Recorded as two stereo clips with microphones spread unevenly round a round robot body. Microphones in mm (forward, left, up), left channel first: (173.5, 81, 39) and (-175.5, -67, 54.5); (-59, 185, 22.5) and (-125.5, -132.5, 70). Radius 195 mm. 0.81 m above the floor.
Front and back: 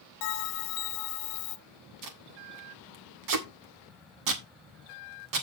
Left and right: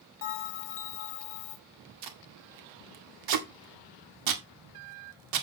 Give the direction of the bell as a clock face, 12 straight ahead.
11 o'clock.